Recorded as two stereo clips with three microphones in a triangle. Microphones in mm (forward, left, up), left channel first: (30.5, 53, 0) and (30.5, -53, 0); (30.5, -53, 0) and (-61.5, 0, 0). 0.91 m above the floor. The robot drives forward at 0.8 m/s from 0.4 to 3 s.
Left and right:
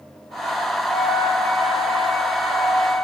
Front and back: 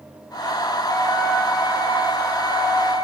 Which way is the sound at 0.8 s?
50° left.